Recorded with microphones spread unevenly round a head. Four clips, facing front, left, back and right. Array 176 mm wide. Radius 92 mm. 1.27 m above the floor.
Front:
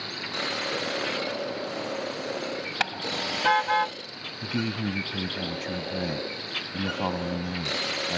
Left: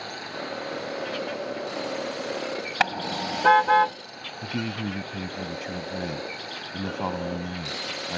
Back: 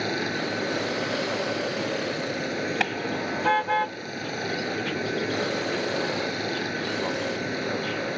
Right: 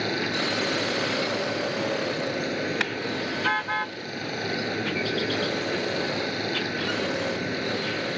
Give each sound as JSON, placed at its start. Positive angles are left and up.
{"t": 0.0, "sound": "running water", "azimuth_deg": -130}
{"t": 2.8, "sound": "a car horn", "azimuth_deg": 115}
{"t": 4.4, "sound": "a man speaking", "azimuth_deg": 35}